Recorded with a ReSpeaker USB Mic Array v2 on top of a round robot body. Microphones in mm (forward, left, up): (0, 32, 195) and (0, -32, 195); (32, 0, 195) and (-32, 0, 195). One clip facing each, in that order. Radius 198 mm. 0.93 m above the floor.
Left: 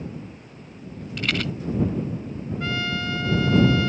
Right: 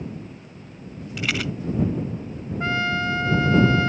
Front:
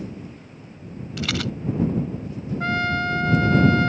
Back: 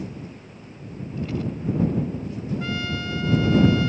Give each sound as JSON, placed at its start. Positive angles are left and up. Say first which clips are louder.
{"t": 1.2, "sound": "a rattle", "louder": "even, front 1 dB", "azimuth_deg": -5}
{"t": 2.6, "sound": "a trumpet", "louder": "right 5 dB, front 11 dB", "azimuth_deg": -30}